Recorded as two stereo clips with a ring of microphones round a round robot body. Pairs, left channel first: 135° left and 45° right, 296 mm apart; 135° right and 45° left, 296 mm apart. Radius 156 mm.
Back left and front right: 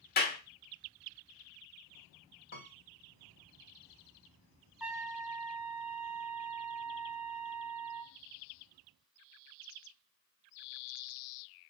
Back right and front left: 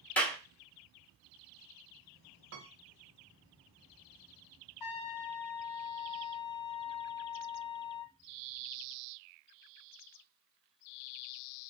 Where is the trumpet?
130° right, 1.2 m.